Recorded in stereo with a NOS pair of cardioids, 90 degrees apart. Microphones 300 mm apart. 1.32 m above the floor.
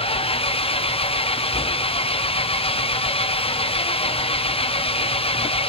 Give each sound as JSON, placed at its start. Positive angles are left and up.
{"t": 0.0, "sound": "an engine running", "azimuth_deg": 20, "distance_m": 0.9}